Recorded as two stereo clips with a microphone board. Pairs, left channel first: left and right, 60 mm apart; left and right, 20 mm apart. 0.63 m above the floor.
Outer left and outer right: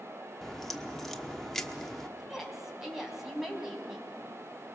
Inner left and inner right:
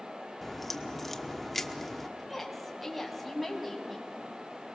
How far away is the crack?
About 1.1 m.